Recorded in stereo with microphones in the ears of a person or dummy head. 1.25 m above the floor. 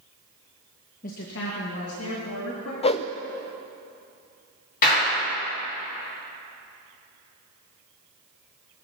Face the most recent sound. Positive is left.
turn(degrees=50)  # may be behind; listen again after turning